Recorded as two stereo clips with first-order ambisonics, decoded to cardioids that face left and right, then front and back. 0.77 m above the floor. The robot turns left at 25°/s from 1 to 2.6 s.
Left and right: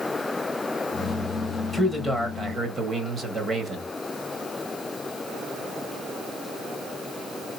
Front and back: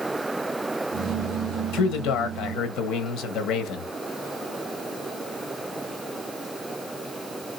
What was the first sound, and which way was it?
A man speaking, 5° right.